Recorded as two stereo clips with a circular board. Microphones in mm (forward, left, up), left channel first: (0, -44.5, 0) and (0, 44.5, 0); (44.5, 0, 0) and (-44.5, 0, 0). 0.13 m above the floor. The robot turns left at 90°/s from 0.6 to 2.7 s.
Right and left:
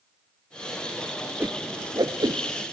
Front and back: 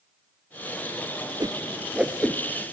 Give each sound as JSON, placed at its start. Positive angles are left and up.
{"t": 1.4, "sound": "a whoosh", "azimuth_deg": 155, "distance_m": 0.7}